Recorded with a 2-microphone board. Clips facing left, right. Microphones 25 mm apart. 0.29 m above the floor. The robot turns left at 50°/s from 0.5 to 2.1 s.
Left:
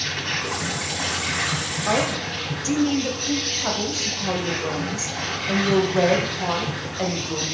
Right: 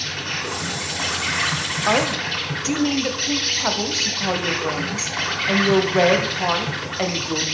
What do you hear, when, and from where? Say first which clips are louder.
0.0 s an insect: even; 5° left, 2 m; by 7.5 s 75° right, 2 m
1.9 s a woman speaking: right 3 dB; 25° right (ahead or behind), 0.9 m